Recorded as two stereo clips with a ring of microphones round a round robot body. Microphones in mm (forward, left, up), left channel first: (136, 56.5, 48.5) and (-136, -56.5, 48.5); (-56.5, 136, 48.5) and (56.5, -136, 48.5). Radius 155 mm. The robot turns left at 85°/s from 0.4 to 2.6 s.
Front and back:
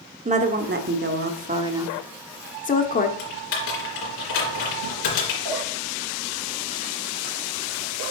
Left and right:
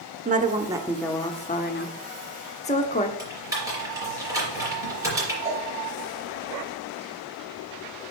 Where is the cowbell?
145° right, 4 m.